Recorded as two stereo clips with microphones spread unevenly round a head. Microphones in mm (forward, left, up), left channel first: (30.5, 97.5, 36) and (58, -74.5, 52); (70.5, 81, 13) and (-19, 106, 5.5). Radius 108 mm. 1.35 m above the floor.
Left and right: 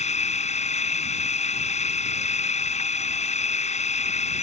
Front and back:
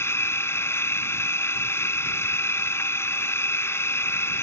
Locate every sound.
0.0 s a machine running: 45° left